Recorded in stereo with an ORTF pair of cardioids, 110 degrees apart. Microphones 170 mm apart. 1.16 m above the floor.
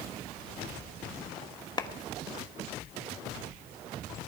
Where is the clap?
25° left, 1.2 m.